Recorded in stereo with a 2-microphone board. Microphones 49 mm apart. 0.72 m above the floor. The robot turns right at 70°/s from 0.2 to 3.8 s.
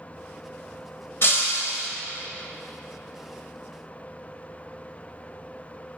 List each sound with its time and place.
1.2 s breaking glass: 50° left, 1.3 m; by 1.9 s 100° left, 1.3 m